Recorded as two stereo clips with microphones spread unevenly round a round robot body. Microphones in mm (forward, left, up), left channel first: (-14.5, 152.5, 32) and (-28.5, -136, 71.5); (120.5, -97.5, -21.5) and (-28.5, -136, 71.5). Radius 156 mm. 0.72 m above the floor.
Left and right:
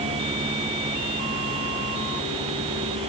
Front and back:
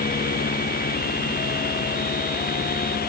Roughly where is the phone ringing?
No phone ringing in this recording.